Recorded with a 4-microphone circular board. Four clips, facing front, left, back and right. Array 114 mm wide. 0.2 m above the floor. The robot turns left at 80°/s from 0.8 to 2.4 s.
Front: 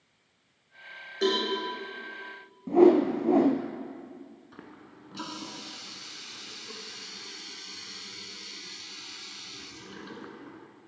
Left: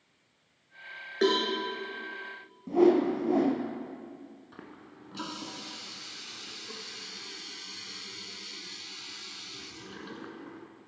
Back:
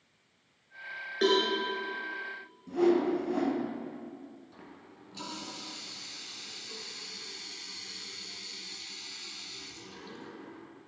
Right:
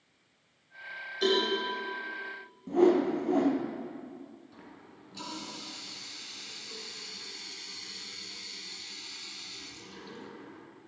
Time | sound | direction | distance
1.2 | a cowbell | 110° left | 3 m
2.7 | a whoosh | 5° left | 0.9 m
4.5 | a running tap | 45° left | 1.4 m